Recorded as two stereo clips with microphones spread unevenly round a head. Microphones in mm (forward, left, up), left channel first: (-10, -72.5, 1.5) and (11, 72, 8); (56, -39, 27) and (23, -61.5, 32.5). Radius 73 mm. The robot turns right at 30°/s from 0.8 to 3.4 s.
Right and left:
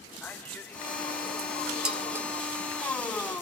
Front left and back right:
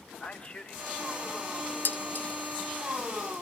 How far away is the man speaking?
About 1.7 m.